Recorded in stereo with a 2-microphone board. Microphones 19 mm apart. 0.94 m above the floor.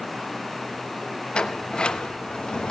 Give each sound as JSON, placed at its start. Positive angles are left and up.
{"t": 1.3, "sound": "a sliding door", "side_deg": 60, "distance_m": 1.1}